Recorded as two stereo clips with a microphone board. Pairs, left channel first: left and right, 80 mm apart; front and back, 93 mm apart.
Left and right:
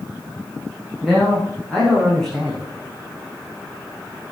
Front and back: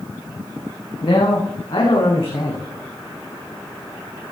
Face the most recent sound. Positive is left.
turn(degrees=10)